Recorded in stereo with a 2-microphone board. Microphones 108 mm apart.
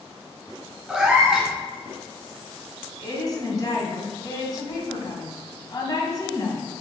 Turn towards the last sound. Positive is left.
turn(degrees=40)  # may be behind; listen again after turning